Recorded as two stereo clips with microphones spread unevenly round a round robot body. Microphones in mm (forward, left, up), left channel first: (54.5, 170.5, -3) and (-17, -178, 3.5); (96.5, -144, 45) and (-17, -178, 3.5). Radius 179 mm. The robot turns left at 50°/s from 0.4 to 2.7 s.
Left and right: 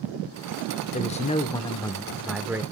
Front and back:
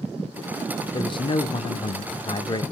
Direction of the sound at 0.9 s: 60° left.